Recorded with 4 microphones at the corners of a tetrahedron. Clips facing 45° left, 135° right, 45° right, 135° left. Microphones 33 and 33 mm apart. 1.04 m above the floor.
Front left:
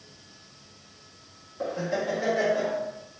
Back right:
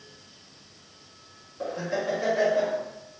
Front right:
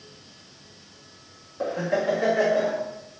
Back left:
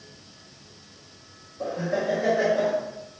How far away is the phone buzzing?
No phone buzzing in this recording.